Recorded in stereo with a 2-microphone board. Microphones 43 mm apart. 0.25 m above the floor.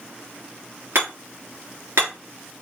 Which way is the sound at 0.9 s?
70° right (ahead or behind).